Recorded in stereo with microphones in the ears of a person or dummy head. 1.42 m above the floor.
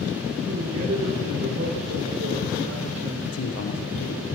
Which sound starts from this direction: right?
A man speaking, at 0.5 s.